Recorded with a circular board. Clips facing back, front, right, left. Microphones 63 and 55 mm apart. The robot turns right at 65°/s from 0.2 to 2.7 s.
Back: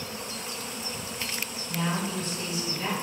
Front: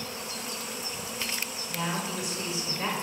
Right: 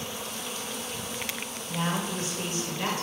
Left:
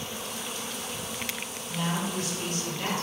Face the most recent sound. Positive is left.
turn(degrees=-35)